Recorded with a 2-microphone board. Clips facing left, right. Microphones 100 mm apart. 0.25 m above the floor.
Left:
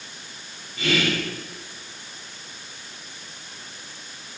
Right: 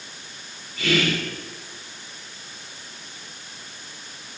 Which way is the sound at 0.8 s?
25° left (ahead or behind).